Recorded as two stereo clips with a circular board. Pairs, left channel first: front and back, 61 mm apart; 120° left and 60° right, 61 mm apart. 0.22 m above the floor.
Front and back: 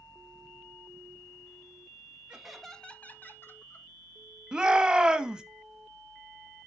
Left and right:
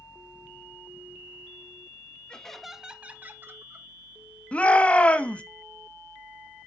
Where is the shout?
135° left, 1.0 m.